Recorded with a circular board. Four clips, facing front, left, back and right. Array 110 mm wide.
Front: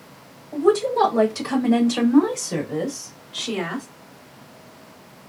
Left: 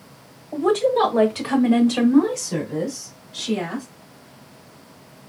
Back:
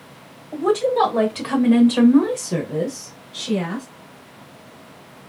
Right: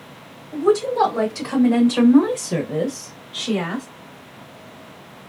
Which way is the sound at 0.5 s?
130° left.